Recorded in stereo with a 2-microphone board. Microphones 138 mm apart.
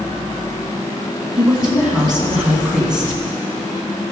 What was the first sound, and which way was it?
A woman speaking, 5° right (ahead or behind).